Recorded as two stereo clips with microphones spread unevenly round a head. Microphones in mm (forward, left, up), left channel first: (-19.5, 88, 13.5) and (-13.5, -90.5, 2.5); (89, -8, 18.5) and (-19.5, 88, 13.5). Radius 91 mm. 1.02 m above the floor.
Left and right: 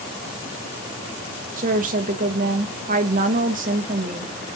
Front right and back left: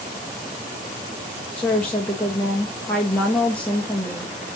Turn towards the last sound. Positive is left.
turn(degrees=-125)